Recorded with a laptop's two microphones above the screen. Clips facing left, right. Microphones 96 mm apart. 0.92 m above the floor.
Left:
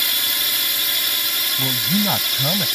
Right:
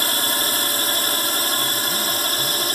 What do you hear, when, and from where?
0.0 s a drone: 40° right (ahead or behind)
1.6 s a man speaking: 75° left (ahead or behind)